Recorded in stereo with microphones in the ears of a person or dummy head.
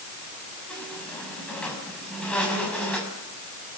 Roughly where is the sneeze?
I don't hear a sneeze.